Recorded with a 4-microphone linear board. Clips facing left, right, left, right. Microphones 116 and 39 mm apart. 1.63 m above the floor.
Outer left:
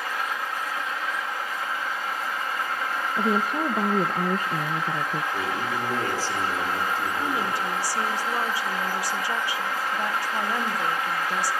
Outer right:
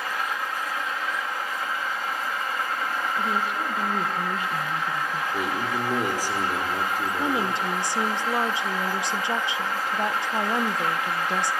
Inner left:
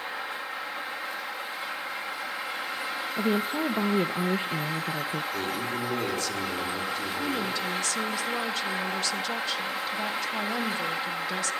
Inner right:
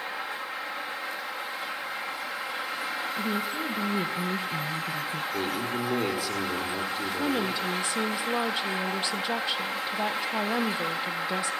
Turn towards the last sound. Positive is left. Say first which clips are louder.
# outer right 1 dB, inner right 3 dB
turn(degrees=-25)  # may be behind; listen again after turning